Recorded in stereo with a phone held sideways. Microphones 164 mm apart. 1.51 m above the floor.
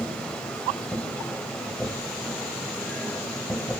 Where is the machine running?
5° left (ahead or behind), 2 m.